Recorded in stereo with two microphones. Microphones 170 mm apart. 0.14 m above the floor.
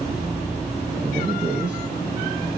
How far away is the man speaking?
About 2.5 m.